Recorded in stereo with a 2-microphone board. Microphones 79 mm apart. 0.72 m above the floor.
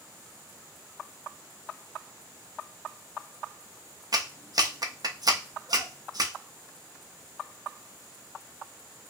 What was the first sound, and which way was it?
A clap, 55° right (ahead or behind).